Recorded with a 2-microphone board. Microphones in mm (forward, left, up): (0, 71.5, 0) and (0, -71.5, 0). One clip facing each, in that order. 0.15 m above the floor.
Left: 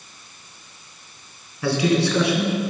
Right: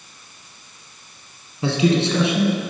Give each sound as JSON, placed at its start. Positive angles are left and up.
{"t": 1.6, "sound": "a man speaking", "side_deg": -25, "distance_m": 1.7}